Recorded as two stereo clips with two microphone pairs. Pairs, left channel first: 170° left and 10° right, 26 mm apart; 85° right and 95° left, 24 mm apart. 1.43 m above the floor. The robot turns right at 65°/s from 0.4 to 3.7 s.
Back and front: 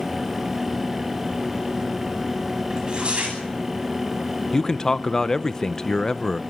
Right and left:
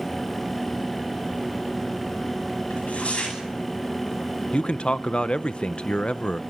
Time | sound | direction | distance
2.7 | tearing paper | 75° right | 9.5 m
4.5 | a man speaking | 125° right | 0.7 m